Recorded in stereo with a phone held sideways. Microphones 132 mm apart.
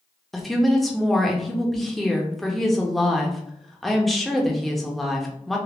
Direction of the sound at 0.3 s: Centre (ahead or behind).